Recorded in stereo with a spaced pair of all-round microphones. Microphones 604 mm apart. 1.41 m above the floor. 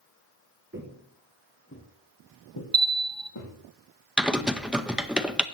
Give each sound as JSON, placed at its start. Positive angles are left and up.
{"t": 0.7, "sound": "footsteps", "side_deg": -20, "distance_m": 1.6}
{"t": 2.7, "sound": "a bell", "side_deg": 0, "distance_m": 0.9}
{"t": 4.2, "sound": "typing on a keyboard", "side_deg": 0, "distance_m": 0.5}